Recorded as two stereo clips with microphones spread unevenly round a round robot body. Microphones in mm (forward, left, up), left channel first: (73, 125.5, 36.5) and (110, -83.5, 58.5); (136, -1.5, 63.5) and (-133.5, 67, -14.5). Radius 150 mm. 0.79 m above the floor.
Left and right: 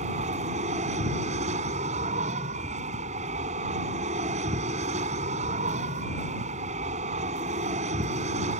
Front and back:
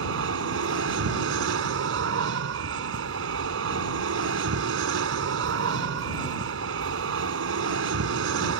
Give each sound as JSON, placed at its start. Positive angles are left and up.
{"t": 0.0, "sound": "an aircraft", "azimuth_deg": -150}